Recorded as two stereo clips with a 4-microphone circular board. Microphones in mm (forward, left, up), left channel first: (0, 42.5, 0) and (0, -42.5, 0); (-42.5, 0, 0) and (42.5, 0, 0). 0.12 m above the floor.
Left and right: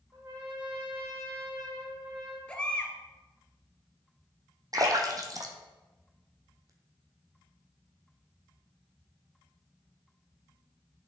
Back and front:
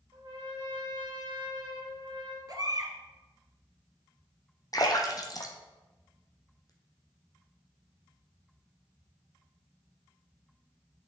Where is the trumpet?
35° right, 2.5 m.